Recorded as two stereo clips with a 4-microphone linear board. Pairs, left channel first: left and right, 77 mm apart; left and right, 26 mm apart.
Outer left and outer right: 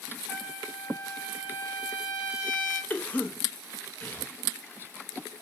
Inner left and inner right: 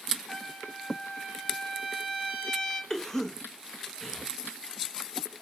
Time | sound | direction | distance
0.3 | a trumpet | 30° left (ahead or behind) | 2 m
2.9 | a cough | 20° left (ahead or behind) | 0.6 m